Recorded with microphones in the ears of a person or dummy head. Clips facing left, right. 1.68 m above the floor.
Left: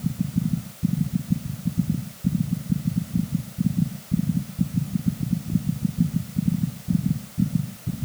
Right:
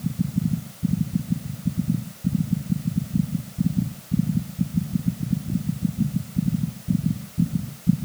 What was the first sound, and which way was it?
Only background noise.